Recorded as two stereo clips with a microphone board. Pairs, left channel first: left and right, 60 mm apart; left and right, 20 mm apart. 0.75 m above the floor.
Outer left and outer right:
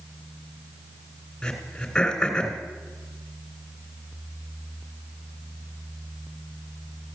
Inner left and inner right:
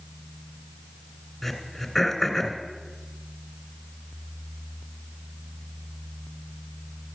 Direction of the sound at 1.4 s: 10° left (ahead or behind).